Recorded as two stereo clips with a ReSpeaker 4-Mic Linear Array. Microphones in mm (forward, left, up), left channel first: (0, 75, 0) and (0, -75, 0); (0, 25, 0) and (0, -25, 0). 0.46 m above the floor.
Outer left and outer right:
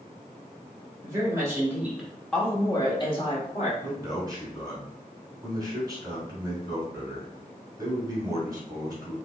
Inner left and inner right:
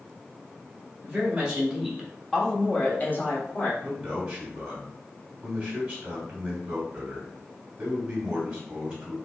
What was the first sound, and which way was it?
A woman speaking, 25° right (ahead or behind).